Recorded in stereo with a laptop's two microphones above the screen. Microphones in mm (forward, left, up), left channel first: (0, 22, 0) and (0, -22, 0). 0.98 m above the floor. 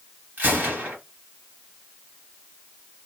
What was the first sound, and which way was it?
A gunshot, 45° right (ahead or behind).